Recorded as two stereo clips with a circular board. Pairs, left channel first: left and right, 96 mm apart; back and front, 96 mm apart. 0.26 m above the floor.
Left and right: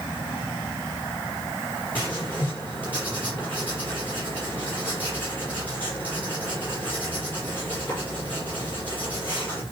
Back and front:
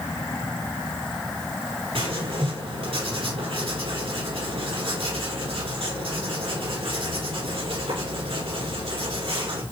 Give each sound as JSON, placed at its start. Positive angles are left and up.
{"t": 1.9, "sound": "writing", "azimuth_deg": 20, "distance_m": 5.5}